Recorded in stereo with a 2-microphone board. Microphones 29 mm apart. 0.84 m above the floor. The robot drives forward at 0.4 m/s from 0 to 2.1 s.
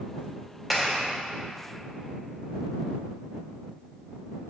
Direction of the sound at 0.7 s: Centre (ahead or behind).